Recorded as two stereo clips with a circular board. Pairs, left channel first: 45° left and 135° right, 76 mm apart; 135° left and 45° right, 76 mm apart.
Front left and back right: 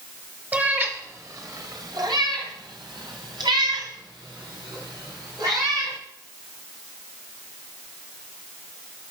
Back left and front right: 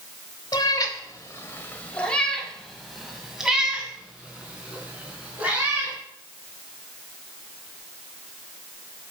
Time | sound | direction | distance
0.5 | a cat meowing | 160° left | 1.4 m